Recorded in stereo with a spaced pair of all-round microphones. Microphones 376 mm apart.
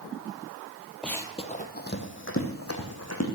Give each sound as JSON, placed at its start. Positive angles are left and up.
{"t": 1.0, "sound": "running footsteps", "side_deg": 0, "distance_m": 1.3}